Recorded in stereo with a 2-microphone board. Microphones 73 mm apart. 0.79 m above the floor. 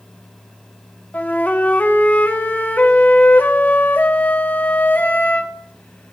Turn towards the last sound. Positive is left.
turn(degrees=25)  # may be behind; listen again after turning